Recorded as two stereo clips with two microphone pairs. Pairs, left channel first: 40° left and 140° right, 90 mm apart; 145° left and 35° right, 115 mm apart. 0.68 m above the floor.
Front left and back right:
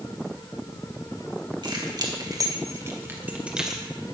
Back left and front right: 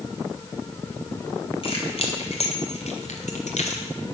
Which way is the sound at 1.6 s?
175° right.